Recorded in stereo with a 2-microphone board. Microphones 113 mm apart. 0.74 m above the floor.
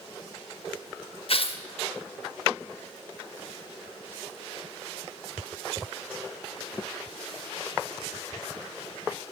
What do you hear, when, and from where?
1.3 s tearing paper: 55° left (ahead or behind), 0.7 m